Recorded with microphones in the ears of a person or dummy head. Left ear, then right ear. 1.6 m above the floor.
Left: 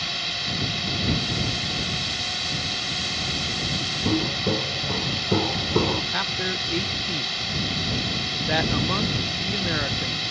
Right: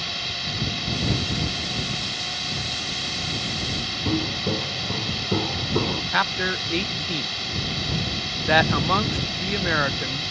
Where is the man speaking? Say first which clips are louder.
Right 3 dB; 35° right (ahead or behind).